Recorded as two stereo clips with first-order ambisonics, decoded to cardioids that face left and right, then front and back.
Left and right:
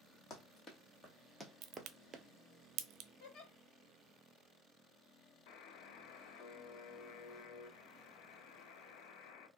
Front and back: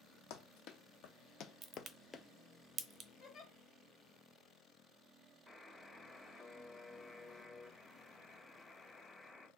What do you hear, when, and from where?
0.3 s running footsteps: 30° left, 1.3 m; by 2.2 s 85° right, 0.6 m
1.6 s a crack: 120° right, 0.5 m
3.2 s a giggle: 65° left, 1.5 m
5.5 s a buzzer: 85° left, 0.6 m